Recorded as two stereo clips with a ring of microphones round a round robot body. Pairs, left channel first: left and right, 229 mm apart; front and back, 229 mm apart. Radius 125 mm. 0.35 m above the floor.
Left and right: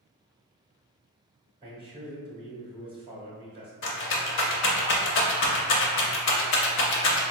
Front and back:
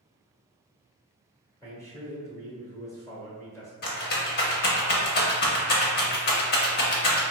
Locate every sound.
1.6 s a man speaking: 60° right, 1.0 m
3.8 s a rattle: 50° left, 0.5 m